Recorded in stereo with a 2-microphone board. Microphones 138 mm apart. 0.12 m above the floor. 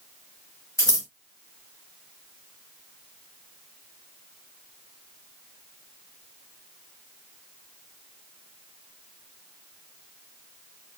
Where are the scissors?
20° left (ahead or behind), 1.4 m.